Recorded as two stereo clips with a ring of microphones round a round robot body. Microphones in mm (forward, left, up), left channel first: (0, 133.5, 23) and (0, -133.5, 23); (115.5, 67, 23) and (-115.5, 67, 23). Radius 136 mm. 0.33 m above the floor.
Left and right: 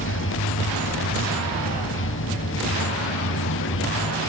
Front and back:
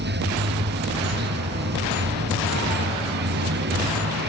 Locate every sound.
0.0 s running water: 135° left